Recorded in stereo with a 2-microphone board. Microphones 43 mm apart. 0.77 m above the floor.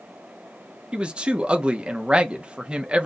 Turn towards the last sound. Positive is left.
turn(degrees=-25)  # may be behind; listen again after turning